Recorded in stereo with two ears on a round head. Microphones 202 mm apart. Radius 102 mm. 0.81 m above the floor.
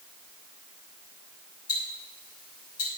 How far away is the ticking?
About 5.5 m.